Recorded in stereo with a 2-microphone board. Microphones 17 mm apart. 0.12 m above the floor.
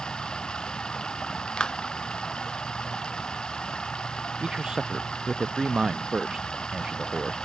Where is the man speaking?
45° right (ahead or behind).